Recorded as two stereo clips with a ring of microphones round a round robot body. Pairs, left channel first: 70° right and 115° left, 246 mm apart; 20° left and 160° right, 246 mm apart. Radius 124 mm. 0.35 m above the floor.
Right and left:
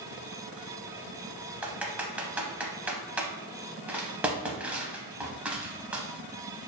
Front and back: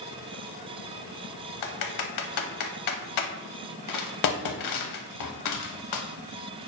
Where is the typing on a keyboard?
30° left, 0.6 m.